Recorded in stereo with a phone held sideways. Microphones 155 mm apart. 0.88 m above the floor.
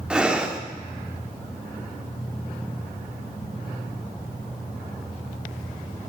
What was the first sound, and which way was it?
Breathing, 5° right (ahead or behind).